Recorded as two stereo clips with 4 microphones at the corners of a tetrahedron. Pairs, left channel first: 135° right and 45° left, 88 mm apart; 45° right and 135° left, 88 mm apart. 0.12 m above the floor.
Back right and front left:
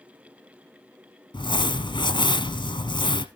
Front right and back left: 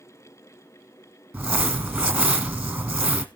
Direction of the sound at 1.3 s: 150° right.